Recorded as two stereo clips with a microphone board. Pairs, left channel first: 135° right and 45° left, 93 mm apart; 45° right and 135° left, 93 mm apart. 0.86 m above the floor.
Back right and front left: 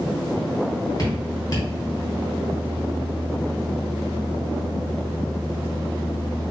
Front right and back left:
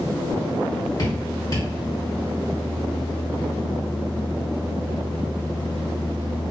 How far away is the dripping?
About 2.5 m.